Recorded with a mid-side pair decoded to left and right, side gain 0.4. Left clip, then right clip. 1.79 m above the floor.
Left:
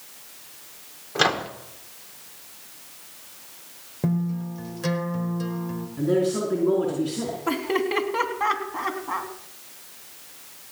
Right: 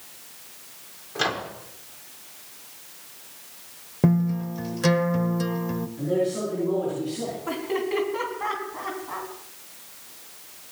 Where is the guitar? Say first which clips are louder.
Right 4 dB; 50° right, 1.3 m.